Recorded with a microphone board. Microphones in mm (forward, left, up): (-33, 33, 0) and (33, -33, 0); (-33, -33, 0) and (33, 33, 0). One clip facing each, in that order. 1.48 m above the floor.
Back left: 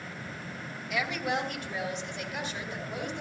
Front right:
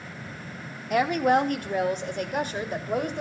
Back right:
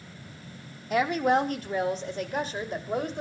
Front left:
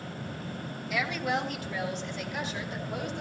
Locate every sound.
0.9 s a woman speaking: 85° right, 1.5 m